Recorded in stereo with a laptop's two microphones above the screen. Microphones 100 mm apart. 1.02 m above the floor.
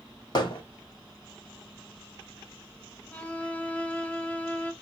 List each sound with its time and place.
0.3 s hammering: 45° left (ahead or behind), 1.2 m
3.1 s a violin: 10° left (ahead or behind), 0.6 m